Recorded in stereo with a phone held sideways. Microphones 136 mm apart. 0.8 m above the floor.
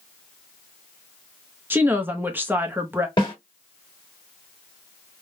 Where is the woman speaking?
15° right (ahead or behind), 0.6 m.